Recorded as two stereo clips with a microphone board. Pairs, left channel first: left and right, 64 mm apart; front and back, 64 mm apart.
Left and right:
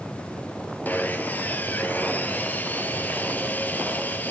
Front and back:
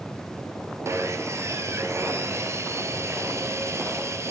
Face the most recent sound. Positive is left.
turn(degrees=150)